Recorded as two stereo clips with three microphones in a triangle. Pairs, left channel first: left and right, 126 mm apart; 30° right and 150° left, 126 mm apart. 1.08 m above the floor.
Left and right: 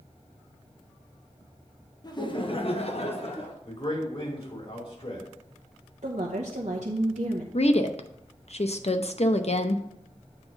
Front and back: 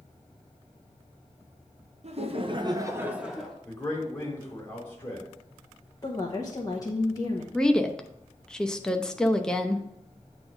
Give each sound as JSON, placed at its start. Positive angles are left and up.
{"t": 2.0, "sound": "laughter", "azimuth_deg": 140, "distance_m": 1.1}
{"t": 3.6, "sound": "a man speaking", "azimuth_deg": 45, "distance_m": 3.0}
{"t": 6.0, "sound": "a woman speaking", "azimuth_deg": -90, "distance_m": 1.0}
{"t": 7.5, "sound": "a woman speaking", "azimuth_deg": 55, "distance_m": 0.7}